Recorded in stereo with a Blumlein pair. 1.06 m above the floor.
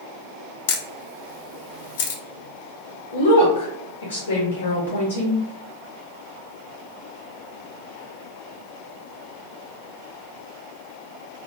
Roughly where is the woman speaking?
Left.